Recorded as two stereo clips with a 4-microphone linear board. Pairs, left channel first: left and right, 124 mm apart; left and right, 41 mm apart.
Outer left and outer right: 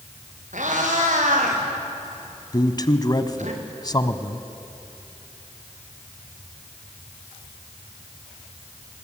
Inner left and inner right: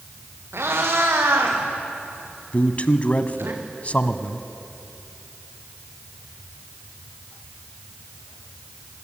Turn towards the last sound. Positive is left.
turn(degrees=35)  # may be behind; listen again after turning